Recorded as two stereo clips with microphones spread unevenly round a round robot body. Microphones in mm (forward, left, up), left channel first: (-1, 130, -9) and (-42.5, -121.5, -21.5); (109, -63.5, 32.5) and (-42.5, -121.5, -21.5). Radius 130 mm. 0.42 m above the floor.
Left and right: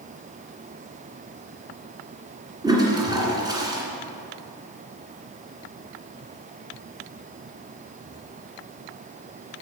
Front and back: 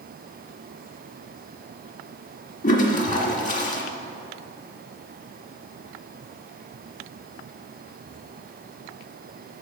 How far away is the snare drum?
I don't hear a snare drum.